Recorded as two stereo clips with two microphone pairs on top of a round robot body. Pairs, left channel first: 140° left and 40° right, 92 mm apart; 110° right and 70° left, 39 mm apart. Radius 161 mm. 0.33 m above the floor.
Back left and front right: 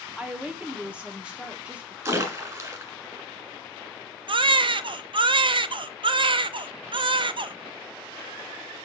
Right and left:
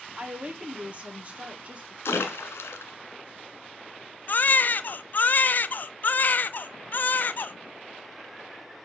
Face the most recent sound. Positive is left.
turn(degrees=-70)